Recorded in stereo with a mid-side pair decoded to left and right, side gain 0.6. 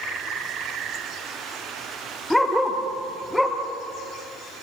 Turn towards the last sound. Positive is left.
turn(degrees=10)